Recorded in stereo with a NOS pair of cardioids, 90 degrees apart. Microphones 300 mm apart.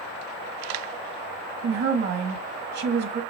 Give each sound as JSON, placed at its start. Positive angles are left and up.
{"t": 1.6, "sound": "a woman speaking", "azimuth_deg": -65, "distance_m": 1.3}